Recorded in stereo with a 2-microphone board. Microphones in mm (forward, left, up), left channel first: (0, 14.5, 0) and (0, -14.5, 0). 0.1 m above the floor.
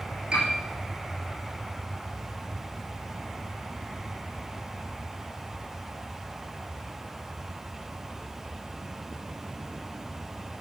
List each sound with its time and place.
0.3 s a piano: 30° right (ahead or behind), 5 m